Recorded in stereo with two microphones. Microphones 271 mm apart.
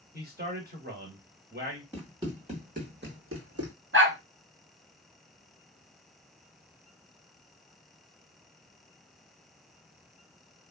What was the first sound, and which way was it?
A man speaking, 35° right (ahead or behind).